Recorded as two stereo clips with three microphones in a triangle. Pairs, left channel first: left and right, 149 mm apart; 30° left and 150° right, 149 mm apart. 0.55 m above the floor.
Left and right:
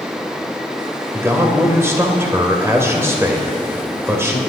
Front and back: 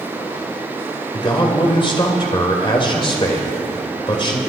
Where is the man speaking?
20° right, 2 m.